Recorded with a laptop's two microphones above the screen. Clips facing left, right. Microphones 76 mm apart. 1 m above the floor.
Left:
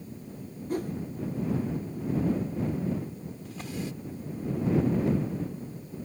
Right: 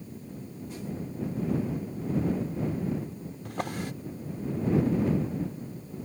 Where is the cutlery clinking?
No cutlery clinking in this recording.